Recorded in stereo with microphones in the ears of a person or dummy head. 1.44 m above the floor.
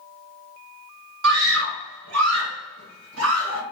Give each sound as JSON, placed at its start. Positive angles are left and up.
{"t": 1.2, "sound": "a scream", "side_deg": -75, "distance_m": 1.2}